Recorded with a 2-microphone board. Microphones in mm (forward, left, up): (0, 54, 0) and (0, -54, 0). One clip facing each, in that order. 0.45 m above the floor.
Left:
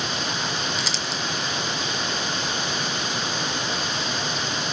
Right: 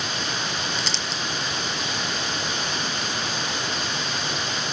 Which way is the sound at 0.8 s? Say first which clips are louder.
Left 1 dB; centre (ahead or behind).